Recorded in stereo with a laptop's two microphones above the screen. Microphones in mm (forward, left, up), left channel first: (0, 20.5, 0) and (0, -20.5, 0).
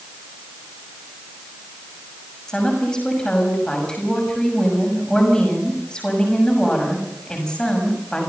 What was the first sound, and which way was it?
A woman speaking, 15° left (ahead or behind).